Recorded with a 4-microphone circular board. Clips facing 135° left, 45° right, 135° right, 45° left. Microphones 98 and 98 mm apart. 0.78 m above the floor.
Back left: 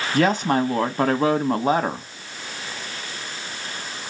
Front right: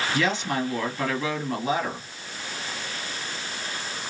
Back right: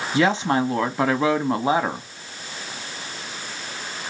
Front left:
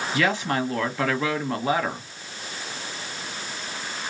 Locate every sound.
0.1 s a woman speaking: 165° left, 1.0 m